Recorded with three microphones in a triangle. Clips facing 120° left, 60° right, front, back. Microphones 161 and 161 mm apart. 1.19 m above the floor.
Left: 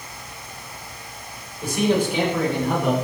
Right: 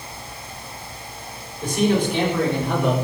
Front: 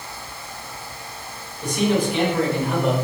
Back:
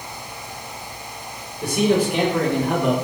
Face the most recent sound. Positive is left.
turn(degrees=-155)